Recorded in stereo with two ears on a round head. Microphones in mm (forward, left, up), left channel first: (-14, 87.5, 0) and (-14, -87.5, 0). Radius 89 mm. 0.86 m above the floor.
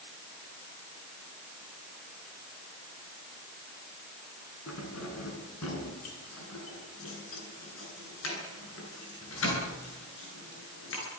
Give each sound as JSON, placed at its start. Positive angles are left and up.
{"t": 4.7, "sound": "keys jangling", "side_deg": 85, "distance_m": 8.0}